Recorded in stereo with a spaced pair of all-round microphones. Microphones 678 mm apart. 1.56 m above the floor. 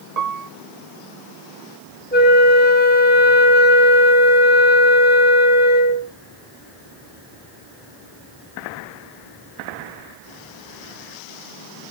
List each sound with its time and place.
0.2 s a piano: 65° right (ahead or behind), 1.0 m
2.1 s a flute: 15° left (ahead or behind), 1.4 m